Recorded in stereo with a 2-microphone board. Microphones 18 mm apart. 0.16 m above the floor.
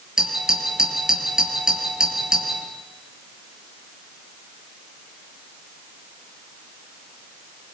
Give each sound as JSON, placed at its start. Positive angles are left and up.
{"t": 0.2, "sound": "a doorbell", "side_deg": -35, "distance_m": 4.0}